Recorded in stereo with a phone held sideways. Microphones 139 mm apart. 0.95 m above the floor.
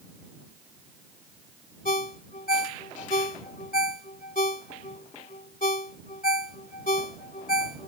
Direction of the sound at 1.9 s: 75° left (ahead or behind).